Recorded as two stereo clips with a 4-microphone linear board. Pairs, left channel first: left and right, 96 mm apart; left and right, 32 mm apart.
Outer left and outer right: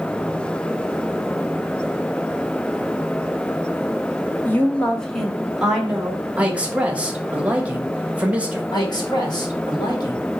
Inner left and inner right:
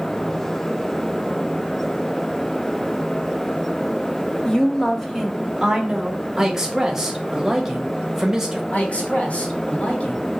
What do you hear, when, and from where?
4.5 s a woman speaking: 20° left (ahead or behind), 0.9 m; by 6.2 s 10° right (ahead or behind), 1.6 m
6.4 s a man speaking: 15° right (ahead or behind), 1.1 m
8.7 s a man speaking: 45° left (ahead or behind), 1.5 m